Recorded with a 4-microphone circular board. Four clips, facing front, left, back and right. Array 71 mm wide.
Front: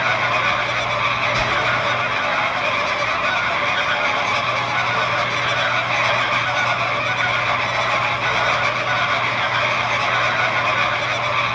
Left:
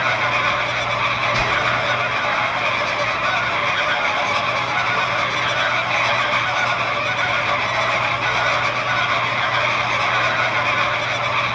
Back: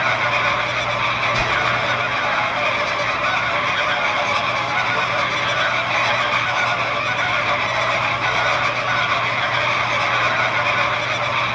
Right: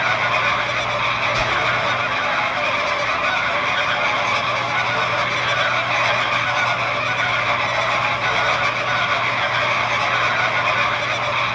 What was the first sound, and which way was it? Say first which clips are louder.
Whispering: even, even; 110° left.